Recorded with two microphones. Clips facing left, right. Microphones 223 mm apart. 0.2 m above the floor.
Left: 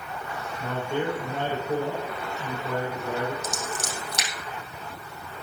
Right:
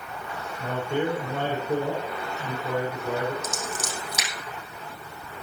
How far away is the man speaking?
About 6.5 m.